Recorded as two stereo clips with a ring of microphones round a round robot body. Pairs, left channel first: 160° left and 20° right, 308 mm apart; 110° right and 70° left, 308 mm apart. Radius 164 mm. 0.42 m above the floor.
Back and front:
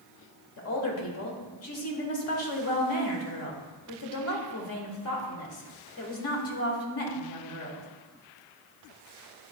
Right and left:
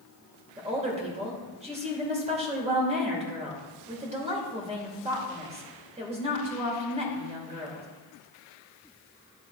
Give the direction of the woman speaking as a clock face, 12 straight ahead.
8 o'clock.